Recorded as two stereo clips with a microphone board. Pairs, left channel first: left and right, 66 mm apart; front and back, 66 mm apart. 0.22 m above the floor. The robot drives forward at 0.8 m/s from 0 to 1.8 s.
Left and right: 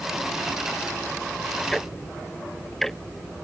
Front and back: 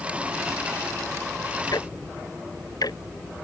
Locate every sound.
1.7 s ticking: 5° left